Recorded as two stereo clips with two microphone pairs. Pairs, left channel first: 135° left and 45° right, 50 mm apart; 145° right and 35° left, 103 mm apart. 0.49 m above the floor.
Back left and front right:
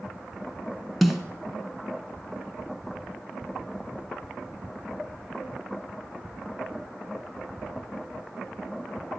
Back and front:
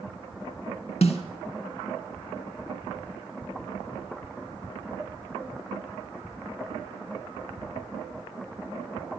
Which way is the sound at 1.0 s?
135° right.